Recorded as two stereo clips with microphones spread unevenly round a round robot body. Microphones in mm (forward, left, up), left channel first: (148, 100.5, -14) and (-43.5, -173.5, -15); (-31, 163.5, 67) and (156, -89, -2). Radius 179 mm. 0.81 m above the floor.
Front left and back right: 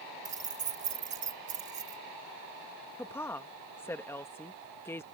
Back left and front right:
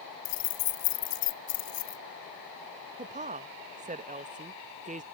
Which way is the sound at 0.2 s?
165° left.